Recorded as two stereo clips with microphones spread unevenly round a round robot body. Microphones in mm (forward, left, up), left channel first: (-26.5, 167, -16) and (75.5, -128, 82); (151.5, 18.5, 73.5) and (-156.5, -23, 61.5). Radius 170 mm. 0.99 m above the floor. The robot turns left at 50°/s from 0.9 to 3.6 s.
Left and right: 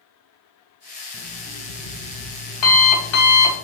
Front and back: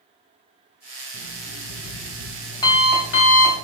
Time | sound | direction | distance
1.1 | an alarm clock | 160° left | 3 m